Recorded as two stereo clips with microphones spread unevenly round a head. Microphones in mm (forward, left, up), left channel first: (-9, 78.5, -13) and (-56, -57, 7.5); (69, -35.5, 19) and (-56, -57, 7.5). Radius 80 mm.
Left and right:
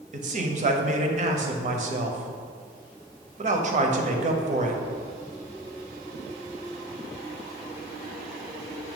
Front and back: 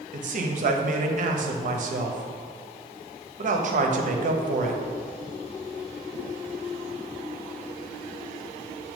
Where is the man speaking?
145° right, 0.9 m.